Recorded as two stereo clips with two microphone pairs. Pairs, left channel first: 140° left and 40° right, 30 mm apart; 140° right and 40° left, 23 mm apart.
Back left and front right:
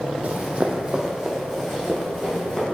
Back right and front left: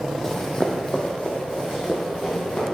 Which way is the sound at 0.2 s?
65° right.